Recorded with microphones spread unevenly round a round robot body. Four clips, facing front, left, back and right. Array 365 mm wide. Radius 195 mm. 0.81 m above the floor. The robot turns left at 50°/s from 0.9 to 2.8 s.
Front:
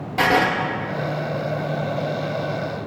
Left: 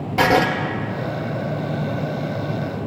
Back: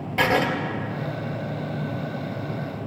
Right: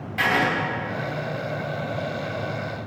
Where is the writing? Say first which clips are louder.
Left 6 dB, front 3 dB; 75° left, 0.6 m.